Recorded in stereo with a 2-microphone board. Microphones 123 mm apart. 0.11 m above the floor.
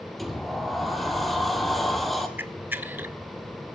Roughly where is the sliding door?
Centre.